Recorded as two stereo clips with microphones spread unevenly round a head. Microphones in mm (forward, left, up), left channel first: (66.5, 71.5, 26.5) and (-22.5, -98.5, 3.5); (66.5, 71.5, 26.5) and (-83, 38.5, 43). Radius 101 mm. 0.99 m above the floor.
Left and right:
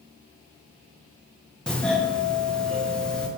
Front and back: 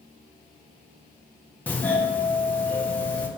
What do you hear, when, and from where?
1.7 s a doorbell: 35° right, 0.6 m